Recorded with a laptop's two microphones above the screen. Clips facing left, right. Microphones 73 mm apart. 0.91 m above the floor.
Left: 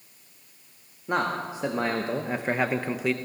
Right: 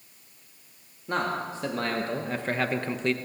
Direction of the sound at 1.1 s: 15° left (ahead or behind).